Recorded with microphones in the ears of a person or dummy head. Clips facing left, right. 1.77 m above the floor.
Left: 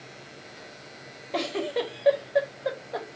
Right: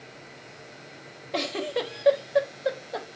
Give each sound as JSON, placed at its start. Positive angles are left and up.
{"t": 1.3, "sound": "a giggle", "side_deg": -5, "distance_m": 0.7}